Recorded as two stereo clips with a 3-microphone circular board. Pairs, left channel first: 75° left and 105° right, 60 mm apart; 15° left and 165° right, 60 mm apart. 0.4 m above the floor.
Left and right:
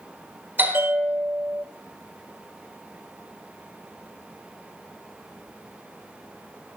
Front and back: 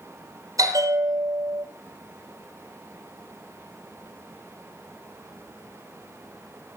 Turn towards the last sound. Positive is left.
turn(degrees=-165)